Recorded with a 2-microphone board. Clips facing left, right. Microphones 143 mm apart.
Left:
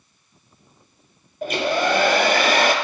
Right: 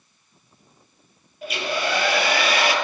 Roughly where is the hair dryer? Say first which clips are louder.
Left 5 dB; left.